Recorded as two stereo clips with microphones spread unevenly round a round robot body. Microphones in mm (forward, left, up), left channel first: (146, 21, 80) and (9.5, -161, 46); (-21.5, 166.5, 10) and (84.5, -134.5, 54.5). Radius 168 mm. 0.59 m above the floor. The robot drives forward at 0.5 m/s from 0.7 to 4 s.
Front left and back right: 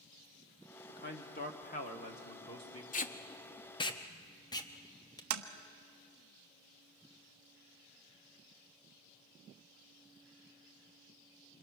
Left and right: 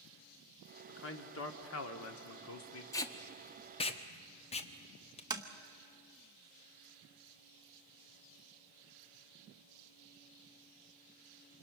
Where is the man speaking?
90° left, 1.7 m; by 2.8 s 130° left, 1.9 m.